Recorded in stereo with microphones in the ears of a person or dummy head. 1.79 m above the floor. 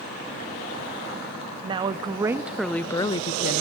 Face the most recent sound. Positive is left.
turn(degrees=55)  # may be behind; listen again after turning